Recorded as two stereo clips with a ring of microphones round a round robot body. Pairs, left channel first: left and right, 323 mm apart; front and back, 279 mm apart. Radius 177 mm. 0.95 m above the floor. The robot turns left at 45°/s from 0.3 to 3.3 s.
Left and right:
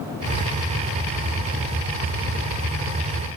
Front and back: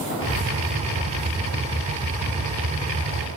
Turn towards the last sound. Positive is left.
No sound to turn to.